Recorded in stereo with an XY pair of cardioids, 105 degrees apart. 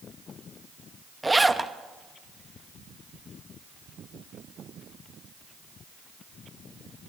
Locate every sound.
1.2 s a zipper: 10° right, 1.1 m